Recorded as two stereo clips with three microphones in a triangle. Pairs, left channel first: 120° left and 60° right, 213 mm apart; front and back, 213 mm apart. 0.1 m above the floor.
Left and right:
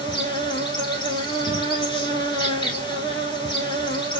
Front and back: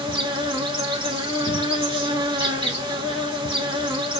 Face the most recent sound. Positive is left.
turn(degrees=150)